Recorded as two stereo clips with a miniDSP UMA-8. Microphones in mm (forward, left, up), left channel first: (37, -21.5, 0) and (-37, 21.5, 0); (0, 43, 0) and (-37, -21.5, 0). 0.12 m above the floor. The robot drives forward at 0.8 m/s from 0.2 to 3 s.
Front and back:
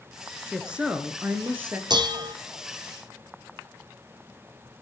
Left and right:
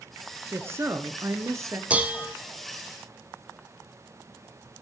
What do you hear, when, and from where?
0.5 s a woman speaking: 130° right, 1.6 m; by 1.8 s 155° right, 2 m
1.9 s dishes clattering: 170° left, 1.6 m; by 2.4 s 175° left, 1.9 m